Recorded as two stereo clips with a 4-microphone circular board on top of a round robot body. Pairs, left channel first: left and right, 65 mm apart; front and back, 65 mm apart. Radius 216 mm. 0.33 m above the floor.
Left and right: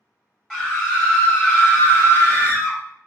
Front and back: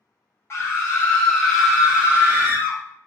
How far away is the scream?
About 1.1 m.